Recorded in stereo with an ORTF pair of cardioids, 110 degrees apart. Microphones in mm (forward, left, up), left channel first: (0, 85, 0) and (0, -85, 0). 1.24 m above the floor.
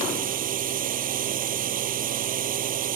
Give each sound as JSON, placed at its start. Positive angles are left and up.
{"t": 0.0, "sound": "a drone", "azimuth_deg": -55}